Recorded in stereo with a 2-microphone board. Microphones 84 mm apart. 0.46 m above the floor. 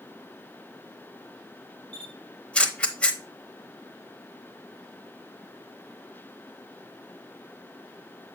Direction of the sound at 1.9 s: 10° left (ahead or behind).